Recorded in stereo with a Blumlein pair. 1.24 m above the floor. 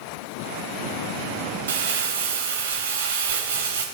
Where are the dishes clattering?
No dishes clattering in this recording.